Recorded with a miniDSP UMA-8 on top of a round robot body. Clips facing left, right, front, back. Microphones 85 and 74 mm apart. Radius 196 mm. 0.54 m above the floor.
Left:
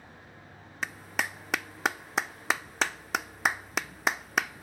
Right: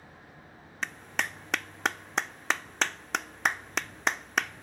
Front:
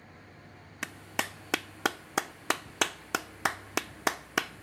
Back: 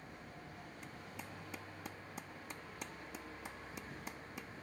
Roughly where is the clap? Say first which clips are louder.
Even, front 19 dB; ahead.